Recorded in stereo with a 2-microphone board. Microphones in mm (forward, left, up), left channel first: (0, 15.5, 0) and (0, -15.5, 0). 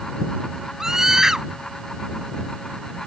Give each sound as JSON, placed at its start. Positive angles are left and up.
{"t": 0.8, "sound": "a scream", "side_deg": -20}